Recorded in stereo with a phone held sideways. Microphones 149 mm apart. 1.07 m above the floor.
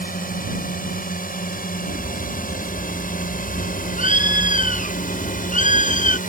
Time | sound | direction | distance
0.0 | a drone | 80° left | ?
1.9 | a bird | 65° left (ahead or behind) | ?